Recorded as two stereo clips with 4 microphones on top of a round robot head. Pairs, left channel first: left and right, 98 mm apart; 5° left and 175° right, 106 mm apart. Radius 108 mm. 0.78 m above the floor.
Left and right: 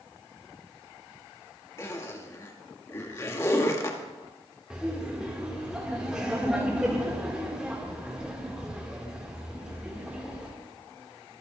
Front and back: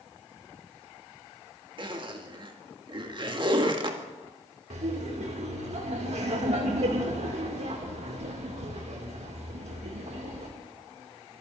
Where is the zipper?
150° left, 2.5 m.